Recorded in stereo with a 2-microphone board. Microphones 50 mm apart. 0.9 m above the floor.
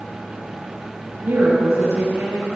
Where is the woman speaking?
80° right, 4.5 m.